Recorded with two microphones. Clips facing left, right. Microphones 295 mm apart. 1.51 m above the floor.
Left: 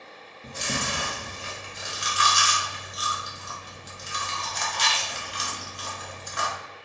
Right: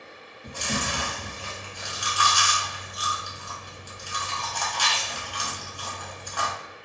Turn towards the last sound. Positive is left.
turn(degrees=25)  # may be behind; listen again after turning